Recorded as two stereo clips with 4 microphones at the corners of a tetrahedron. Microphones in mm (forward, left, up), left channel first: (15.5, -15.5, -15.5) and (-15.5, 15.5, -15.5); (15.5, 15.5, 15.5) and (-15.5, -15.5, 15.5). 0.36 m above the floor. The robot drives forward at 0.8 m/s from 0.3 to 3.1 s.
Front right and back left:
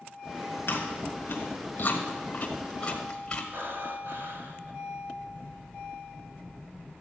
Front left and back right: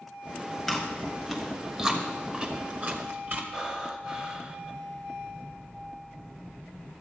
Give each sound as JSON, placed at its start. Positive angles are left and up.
{"t": 0.7, "sound": "chewing", "azimuth_deg": -35, "distance_m": 2.0}
{"t": 3.5, "sound": "breathing", "azimuth_deg": 150, "distance_m": 1.1}